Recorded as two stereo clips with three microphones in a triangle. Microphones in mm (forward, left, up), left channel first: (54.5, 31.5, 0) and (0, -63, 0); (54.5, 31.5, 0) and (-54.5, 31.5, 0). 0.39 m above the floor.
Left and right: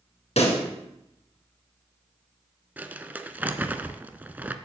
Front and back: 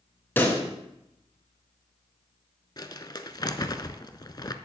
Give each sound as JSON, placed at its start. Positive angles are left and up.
{"t": 0.4, "sound": "a pop", "azimuth_deg": 70, "distance_m": 2.5}
{"t": 2.8, "sound": "crumpling", "azimuth_deg": -45, "distance_m": 0.6}